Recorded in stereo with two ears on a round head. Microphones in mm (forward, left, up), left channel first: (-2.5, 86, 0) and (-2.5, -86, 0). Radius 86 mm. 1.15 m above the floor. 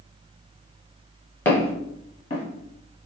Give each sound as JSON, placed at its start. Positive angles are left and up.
{"t": 1.4, "sound": "footsteps", "side_deg": 15, "distance_m": 1.2}